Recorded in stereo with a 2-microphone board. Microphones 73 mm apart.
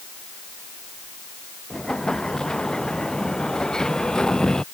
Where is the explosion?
10° left (ahead or behind).